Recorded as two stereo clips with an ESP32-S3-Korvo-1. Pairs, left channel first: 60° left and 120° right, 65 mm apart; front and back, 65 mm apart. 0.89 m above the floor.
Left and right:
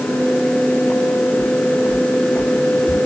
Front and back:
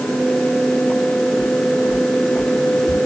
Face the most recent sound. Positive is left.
turn(degrees=155)